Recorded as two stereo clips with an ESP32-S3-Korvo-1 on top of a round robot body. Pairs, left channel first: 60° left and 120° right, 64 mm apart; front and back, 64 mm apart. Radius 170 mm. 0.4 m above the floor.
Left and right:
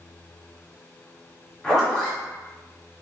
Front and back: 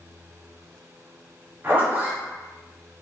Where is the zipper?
140° left, 1.8 m.